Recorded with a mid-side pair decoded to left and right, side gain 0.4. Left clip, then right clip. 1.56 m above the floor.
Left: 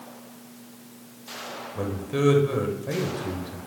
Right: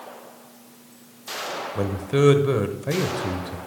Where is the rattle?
I don't hear a rattle.